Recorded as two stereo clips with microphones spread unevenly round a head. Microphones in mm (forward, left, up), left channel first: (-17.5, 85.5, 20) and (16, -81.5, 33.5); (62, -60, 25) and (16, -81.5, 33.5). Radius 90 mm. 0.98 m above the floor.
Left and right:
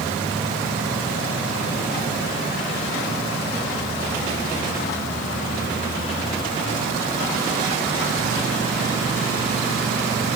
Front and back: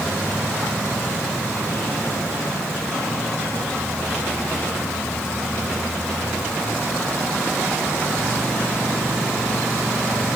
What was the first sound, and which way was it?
Only background noise.